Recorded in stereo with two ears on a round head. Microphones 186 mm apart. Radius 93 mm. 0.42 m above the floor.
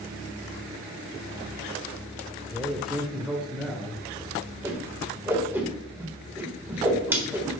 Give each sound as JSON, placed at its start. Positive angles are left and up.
{"t": 2.5, "sound": "a man speaking", "side_deg": 0, "distance_m": 1.0}
{"t": 4.6, "sound": "a whoosh", "side_deg": -10, "distance_m": 1.4}